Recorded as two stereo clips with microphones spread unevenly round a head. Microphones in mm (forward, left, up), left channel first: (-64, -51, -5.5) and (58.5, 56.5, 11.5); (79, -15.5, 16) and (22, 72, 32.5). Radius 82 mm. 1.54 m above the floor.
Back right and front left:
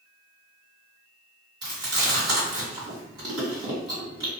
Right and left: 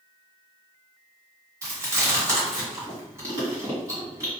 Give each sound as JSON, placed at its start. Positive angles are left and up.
{"t": 1.6, "sound": "chewing", "azimuth_deg": 90, "distance_m": 1.9}